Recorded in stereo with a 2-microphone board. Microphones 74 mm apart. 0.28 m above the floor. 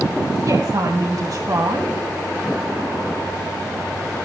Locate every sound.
0.5 s a woman speaking: 50° right (ahead or behind), 2.0 m